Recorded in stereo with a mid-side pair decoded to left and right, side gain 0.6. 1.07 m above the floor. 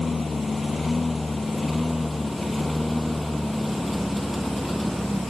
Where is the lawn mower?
20° left; by 5.3 s straight ahead.